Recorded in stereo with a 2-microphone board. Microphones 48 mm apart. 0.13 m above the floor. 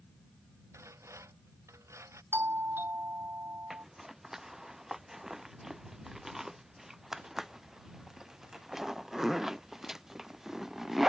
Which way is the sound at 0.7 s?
80° right.